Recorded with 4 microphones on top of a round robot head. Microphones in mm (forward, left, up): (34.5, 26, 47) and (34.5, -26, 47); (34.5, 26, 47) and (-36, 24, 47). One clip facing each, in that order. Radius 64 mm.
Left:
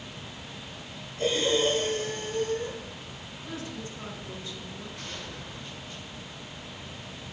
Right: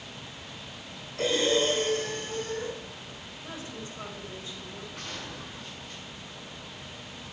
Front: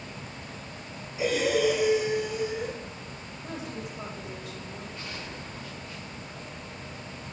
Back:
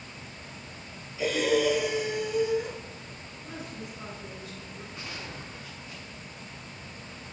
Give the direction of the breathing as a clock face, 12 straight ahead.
2 o'clock.